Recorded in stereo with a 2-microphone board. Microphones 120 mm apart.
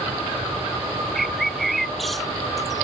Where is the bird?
Centre (ahead or behind).